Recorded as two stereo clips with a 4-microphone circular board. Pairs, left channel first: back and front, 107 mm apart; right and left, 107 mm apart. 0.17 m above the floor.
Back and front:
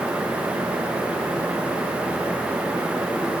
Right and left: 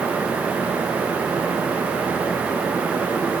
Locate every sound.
Only background noise.